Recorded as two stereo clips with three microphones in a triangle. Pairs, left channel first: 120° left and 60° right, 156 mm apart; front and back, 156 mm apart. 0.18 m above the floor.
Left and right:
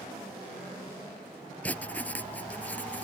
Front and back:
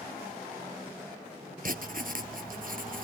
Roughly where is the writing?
Behind.